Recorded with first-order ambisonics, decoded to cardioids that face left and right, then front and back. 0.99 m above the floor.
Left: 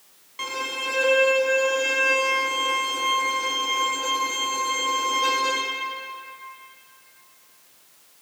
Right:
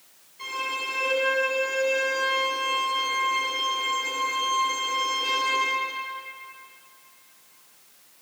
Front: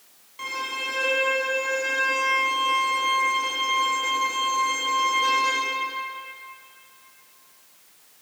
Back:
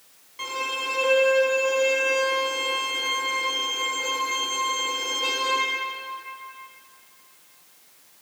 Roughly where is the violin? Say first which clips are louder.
Left 1 dB, back 1 dB; left.